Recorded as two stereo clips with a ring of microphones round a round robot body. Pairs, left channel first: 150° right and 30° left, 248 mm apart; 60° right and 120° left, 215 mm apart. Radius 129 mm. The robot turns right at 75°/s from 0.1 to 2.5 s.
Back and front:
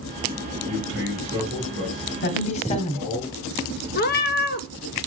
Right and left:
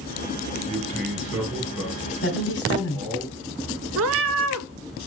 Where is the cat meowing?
160° left, 0.5 m.